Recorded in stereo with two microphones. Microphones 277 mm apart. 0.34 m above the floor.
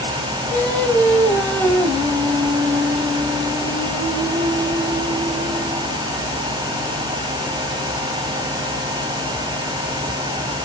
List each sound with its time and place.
0.5 s singing: 5° left (ahead or behind), 2.5 m